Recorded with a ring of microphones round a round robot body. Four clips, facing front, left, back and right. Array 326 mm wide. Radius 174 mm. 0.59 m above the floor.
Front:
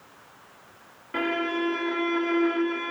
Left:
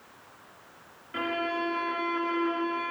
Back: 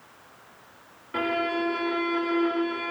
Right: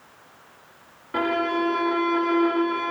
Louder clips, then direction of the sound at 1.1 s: Right 7 dB, even; 85° right.